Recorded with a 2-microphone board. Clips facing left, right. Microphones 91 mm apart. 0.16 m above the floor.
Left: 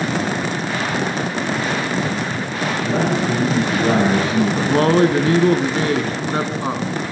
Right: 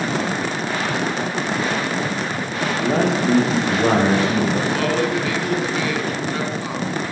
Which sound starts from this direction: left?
A man speaking, at 4.7 s.